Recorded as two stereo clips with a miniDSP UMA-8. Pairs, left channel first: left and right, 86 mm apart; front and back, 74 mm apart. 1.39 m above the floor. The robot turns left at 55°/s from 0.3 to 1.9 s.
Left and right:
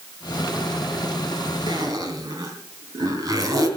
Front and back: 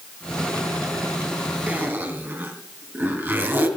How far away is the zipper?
About 2.5 m.